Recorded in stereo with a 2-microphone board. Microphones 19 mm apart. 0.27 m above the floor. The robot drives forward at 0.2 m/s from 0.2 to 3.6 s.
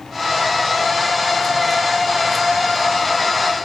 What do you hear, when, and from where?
Only background noise.